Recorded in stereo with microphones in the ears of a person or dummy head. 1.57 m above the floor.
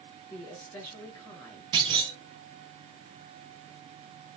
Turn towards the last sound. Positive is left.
turn(degrees=-25)  # may be behind; listen again after turning